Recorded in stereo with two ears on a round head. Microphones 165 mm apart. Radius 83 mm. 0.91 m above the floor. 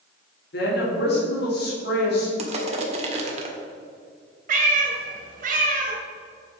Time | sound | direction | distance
0.5 | a woman speaking | 60° left (ahead or behind) | 2.5 m
2.4 | crushing | 35° right (ahead or behind) | 1.5 m
4.5 | a cat meowing | 45° right (ahead or behind) | 1.6 m